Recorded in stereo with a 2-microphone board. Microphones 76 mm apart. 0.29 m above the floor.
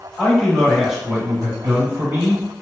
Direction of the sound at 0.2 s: 10° left (ahead or behind).